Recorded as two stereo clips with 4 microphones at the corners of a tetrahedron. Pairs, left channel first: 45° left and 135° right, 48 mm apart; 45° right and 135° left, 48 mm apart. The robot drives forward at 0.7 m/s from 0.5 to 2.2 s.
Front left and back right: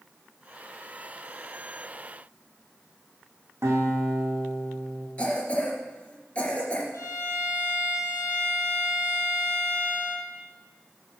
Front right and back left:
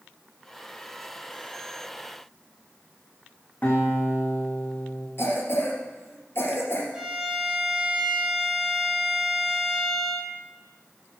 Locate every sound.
3.6 s a guitar: 105° right, 3.5 m
5.2 s a cough: 15° right, 3 m
6.9 s a violin: 60° left, 1.8 m